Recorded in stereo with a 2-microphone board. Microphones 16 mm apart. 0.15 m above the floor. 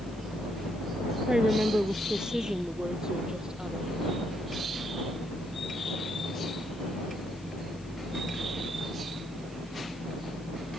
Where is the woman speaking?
55° right (ahead or behind); by 3.9 s 50° right (ahead or behind).